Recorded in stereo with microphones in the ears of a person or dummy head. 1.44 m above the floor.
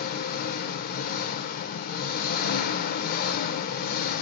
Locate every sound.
0.0 s an engine running: 50° left (ahead or behind), 0.8 m